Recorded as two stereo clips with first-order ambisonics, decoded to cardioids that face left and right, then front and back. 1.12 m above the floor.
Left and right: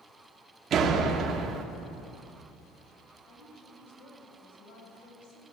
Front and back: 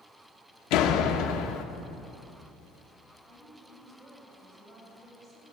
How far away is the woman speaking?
About 8 m.